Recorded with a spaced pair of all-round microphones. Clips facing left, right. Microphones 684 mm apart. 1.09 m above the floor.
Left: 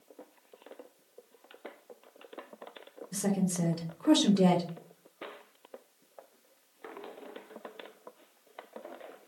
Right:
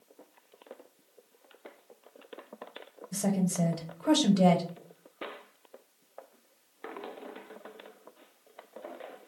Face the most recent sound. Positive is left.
turn(degrees=-20)  # may be behind; listen again after turning